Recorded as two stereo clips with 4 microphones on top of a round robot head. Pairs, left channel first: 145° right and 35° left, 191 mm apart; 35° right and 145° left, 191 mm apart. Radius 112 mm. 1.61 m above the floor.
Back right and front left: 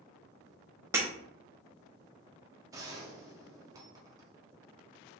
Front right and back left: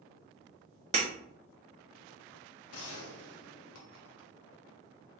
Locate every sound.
0.9 s breaking glass: 105° left, 0.8 m
2.7 s a gunshot: 40° right, 0.7 m